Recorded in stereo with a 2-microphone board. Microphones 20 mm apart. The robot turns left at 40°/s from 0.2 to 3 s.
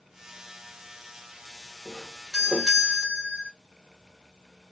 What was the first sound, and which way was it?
A doorbell, 5° left.